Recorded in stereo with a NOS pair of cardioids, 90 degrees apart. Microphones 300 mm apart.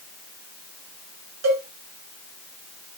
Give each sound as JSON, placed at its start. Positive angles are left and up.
{"t": 1.4, "sound": "a cowbell", "azimuth_deg": -60, "distance_m": 8.5}